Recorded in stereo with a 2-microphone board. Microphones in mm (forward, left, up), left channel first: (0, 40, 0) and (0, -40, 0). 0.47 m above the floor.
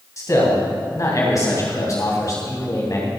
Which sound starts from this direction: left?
A man speaking, at 0.2 s.